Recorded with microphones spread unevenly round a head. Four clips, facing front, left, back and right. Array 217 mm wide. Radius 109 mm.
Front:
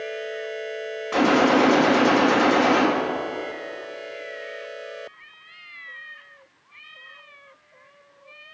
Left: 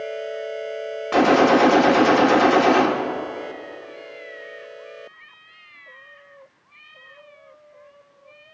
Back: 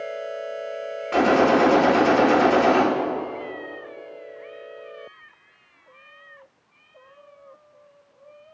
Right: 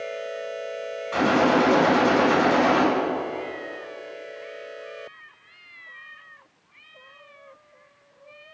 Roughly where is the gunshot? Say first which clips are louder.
Left 5 dB, back 1 dB; left.